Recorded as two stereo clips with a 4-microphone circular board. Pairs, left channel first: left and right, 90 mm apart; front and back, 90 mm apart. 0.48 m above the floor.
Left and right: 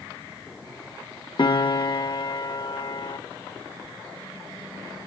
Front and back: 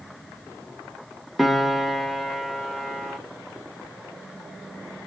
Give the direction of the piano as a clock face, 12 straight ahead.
9 o'clock.